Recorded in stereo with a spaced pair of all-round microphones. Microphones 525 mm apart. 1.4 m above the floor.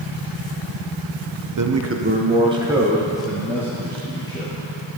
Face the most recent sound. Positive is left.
turn(degrees=10)  # may be behind; listen again after turning